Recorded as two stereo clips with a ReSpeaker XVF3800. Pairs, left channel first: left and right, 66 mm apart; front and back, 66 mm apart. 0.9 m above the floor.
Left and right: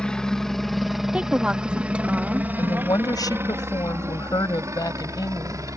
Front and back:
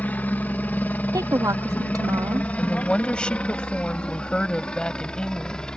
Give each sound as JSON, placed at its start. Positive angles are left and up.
{"t": 0.0, "sound": "a helicopter", "azimuth_deg": 25}
{"t": 1.1, "sound": "a woman speaking", "azimuth_deg": -165}
{"t": 2.6, "sound": "a woman speaking", "azimuth_deg": 75}